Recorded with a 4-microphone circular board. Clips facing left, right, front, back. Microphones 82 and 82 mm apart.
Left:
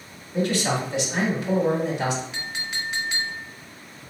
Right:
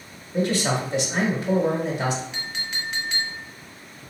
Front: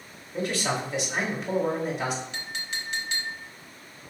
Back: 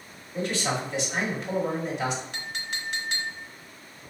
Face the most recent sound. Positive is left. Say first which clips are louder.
# left 1 dB, even
turn(degrees=175)